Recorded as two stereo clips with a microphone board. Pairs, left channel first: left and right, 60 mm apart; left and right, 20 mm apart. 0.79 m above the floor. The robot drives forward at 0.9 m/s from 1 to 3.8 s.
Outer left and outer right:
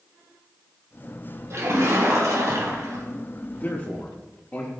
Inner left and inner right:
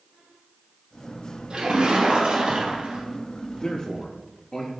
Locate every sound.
1.5 s a splash: 55° right (ahead or behind), 5 m; by 3.0 s 70° right (ahead or behind), 4.5 m
3.6 s a man speaking: 40° left (ahead or behind), 1.2 m; by 4.7 s 35° left (ahead or behind), 1.4 m